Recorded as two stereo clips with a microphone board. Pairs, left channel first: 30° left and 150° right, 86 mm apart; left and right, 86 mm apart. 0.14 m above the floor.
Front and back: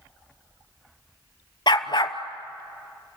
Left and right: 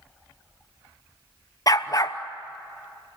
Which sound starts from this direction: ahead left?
A dog barking, at 1.7 s.